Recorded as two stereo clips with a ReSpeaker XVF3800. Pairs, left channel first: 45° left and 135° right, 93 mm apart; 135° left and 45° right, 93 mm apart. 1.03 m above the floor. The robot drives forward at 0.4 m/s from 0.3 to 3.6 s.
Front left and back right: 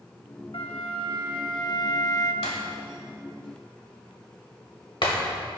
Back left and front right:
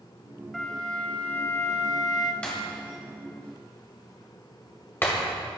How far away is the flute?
About 1.0 m.